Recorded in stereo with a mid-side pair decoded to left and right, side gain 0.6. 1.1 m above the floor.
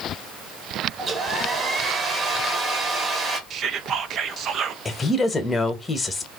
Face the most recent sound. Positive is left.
turn(degrees=25)